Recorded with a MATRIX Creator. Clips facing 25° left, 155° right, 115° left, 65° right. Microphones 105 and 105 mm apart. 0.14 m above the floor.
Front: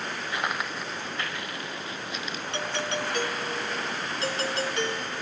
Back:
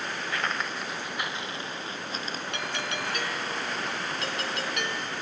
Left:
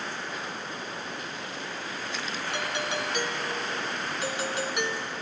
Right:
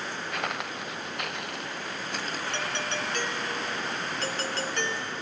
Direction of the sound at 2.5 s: 45° left.